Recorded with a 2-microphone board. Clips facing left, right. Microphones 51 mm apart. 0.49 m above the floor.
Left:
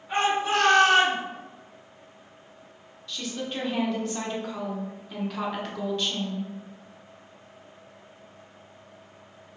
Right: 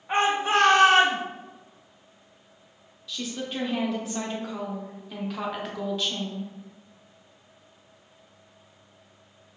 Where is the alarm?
I don't hear an alarm.